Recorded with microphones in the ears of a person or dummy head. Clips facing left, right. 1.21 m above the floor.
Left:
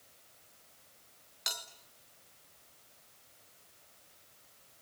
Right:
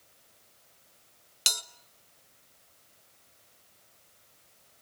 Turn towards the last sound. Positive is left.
turn(degrees=-45)  # may be behind; listen again after turning